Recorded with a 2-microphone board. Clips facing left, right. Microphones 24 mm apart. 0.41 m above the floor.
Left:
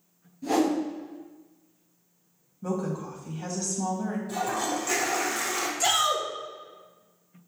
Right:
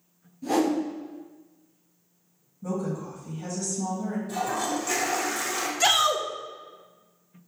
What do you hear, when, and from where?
0.4 s a whoosh: 5° left (ahead or behind), 2.5 m
2.6 s a woman speaking: 45° left (ahead or behind), 2 m
4.3 s a toilet flushing: centre (ahead or behind), 1.2 m
5.8 s a shout: 50° right (ahead or behind), 1.1 m